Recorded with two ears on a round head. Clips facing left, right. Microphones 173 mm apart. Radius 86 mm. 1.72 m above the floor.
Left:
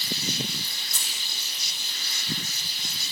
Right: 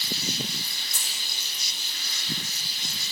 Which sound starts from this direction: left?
Keys jangling, at 0.9 s.